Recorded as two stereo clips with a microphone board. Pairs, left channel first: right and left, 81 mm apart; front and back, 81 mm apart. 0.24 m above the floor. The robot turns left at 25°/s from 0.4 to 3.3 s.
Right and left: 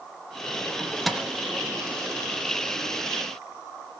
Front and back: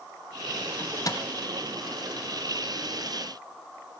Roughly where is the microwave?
Ahead.